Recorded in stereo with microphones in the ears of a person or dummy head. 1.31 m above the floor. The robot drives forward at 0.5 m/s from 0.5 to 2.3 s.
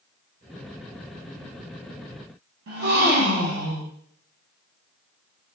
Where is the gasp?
60° right (ahead or behind), 0.7 m.